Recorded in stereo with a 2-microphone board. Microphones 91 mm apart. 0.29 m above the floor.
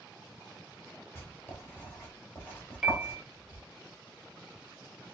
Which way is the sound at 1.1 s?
25° left (ahead or behind).